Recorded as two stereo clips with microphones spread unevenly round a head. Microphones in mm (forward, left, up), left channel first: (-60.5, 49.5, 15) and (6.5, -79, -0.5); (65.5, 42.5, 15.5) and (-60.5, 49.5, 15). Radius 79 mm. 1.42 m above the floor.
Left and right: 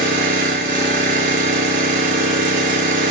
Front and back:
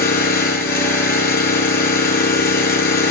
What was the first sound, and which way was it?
An engine running, 15° right.